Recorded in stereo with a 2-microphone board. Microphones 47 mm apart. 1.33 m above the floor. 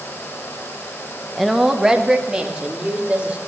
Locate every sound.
1.4 s a woman speaking: centre (ahead or behind), 1.2 m; by 3.4 s 25° right (ahead or behind), 3.5 m